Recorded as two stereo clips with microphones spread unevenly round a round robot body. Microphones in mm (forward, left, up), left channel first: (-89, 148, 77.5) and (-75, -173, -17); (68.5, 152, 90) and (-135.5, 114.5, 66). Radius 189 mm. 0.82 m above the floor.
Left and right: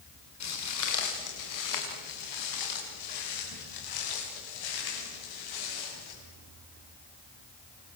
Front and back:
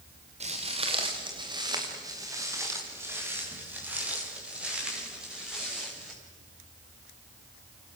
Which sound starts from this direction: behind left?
Footsteps, at 0.4 s.